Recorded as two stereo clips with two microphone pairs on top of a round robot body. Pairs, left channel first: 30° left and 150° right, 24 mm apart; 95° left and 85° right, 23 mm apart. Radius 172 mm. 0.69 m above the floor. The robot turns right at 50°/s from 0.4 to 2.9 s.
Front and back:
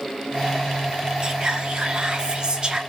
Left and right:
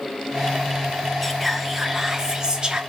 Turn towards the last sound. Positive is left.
turn(degrees=-110)